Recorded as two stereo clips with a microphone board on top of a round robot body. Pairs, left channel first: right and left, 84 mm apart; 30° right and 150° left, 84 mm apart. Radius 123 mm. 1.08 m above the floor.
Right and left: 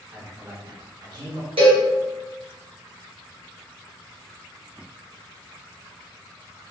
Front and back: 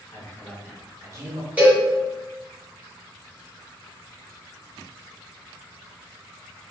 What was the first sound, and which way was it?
A man speaking, 25° left.